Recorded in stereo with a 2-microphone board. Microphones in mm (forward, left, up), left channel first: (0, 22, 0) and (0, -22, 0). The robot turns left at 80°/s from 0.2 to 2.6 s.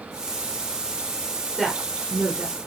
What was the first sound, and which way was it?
A woman speaking, 5° right (ahead or behind).